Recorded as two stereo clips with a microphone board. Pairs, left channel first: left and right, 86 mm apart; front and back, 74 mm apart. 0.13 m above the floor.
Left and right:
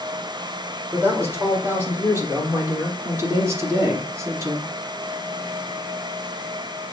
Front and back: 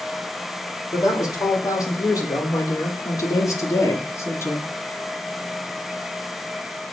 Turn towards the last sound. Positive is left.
turn(degrees=-50)